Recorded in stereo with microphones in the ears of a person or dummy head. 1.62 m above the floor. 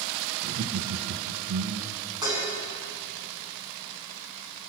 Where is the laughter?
75° right (ahead or behind), 1.5 m; by 2.0 s 65° right (ahead or behind), 1.9 m.